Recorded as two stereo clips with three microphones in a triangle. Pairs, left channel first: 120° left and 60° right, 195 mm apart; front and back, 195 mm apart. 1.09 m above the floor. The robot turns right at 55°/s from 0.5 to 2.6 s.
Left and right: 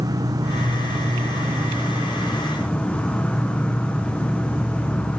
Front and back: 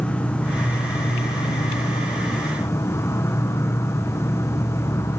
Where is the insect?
70° right, 1.0 m; by 5.2 s 45° left, 1.0 m.